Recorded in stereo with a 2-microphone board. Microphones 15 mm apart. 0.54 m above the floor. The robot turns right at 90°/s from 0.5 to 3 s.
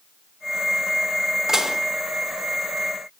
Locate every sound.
1.5 s dishes clattering: 30° right (ahead or behind), 0.6 m; by 1.8 s 50° right (ahead or behind), 0.6 m